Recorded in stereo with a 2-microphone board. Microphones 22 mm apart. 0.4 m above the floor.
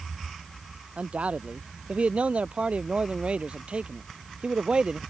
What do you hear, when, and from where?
1.0 s a man speaking: 75° right (ahead or behind); by 5.0 s 45° right (ahead or behind)